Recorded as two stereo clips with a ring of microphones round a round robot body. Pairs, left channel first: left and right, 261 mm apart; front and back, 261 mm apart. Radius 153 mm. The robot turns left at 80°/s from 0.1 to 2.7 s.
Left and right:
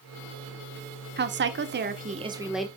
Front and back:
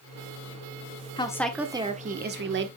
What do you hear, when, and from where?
1.2 s a woman speaking: 65° right, 1.2 m; by 2.7 s 175° left, 1.2 m